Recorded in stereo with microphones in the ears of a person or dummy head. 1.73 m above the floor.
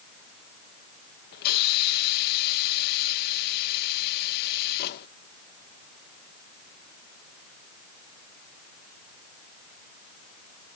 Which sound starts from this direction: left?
A hiss, at 1.3 s.